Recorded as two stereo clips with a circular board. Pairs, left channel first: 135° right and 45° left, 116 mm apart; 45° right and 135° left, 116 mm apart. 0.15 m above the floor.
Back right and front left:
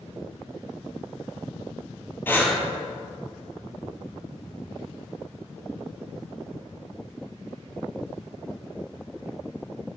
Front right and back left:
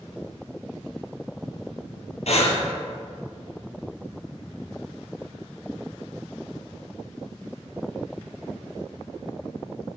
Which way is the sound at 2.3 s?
65° right.